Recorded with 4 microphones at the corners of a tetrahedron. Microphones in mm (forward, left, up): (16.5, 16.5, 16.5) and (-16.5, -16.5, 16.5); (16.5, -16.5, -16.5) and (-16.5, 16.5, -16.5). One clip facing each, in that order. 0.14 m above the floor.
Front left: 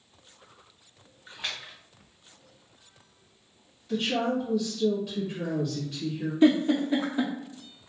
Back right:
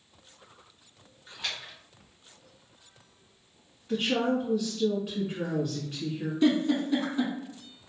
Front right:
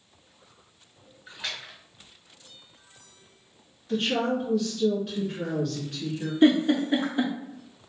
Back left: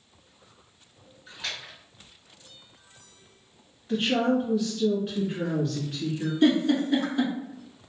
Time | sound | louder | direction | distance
1.3 | a splash | even, even | 5° left | 1.6 m
3.9 | a woman speaking | even, back left 2 dB | 175° right | 1.3 m
6.4 | a giggle | front left 3 dB, front right 2 dB | straight ahead | 0.7 m